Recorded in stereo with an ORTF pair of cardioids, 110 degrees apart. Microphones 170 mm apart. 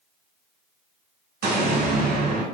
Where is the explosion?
70° right, 1.4 m.